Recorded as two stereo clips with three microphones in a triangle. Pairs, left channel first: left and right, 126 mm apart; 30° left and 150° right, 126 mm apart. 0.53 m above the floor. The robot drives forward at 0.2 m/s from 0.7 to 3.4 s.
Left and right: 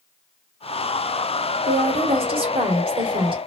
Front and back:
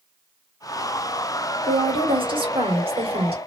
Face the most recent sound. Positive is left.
turn(degrees=-125)